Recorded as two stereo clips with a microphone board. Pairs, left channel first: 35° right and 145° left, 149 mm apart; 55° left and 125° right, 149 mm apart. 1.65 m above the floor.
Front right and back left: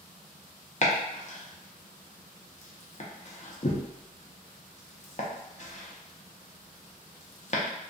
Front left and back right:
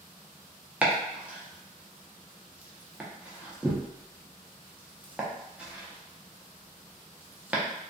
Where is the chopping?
45° right, 0.6 m.